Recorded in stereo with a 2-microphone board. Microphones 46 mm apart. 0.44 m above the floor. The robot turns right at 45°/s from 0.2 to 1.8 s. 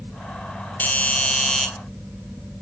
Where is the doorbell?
125° left, 1.9 m; by 1.7 s 165° left, 1.9 m.